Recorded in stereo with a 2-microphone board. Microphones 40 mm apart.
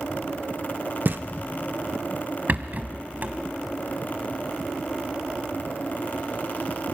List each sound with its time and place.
1.1 s knocking: 55° right (ahead or behind), 0.8 m
2.5 s a rattle: 45° right (ahead or behind), 1.4 m